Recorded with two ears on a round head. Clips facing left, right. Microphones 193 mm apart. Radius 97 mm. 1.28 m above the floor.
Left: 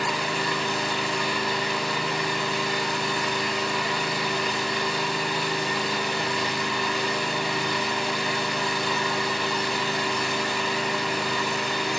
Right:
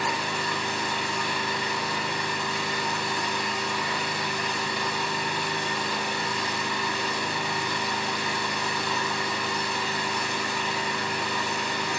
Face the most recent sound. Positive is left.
turn(degrees=60)  # may be behind; listen again after turning